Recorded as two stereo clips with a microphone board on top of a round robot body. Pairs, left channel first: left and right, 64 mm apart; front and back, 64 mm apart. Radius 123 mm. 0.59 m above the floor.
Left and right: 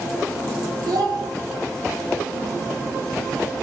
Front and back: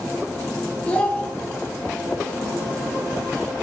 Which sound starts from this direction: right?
A child speaking, at 0.9 s.